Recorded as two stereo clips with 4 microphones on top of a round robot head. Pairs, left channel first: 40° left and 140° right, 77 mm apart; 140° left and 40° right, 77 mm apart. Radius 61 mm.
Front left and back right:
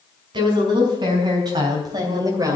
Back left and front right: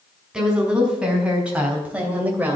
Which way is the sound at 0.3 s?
120° right.